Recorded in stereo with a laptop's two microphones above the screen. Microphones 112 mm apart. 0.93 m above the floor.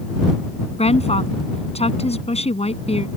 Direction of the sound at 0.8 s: 65° left (ahead or behind).